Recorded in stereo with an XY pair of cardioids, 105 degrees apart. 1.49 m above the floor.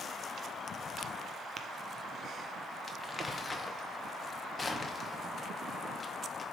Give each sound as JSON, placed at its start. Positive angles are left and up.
{"t": 1.6, "sound": "tapping", "azimuth_deg": -40, "distance_m": 0.7}
{"t": 2.9, "sound": "crumpling", "azimuth_deg": 35, "distance_m": 0.9}